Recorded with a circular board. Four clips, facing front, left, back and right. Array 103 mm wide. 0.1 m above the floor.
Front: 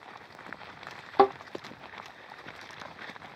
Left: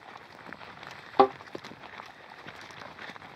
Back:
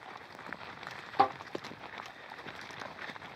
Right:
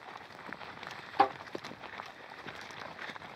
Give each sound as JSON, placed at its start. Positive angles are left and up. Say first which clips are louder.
{"t": 1.2, "sound": "a thud", "louder": "left 6 dB, front 6 dB", "azimuth_deg": 55, "distance_m": 0.7}